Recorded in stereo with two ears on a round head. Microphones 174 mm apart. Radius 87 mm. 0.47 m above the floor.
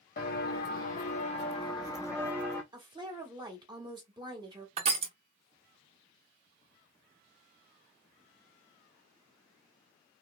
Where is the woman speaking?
25° right (ahead or behind), 1.1 m.